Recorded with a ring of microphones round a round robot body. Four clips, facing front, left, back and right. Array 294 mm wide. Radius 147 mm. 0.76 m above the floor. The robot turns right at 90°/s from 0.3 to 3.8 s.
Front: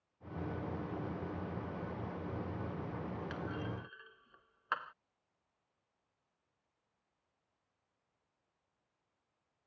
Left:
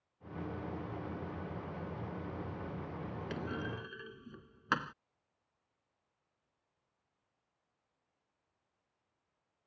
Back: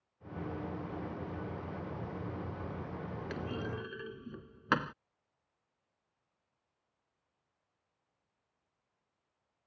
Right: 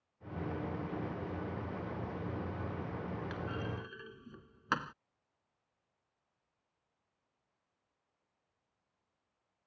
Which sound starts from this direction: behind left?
A clunk, at 3.3 s.